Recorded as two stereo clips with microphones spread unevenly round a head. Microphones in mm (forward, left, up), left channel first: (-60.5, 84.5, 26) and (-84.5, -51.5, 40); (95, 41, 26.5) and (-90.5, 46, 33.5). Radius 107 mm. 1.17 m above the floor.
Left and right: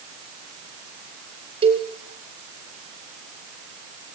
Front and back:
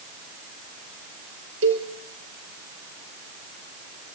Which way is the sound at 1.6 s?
145° right.